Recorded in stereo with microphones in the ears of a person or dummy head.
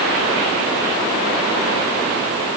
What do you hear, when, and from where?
Only background noise.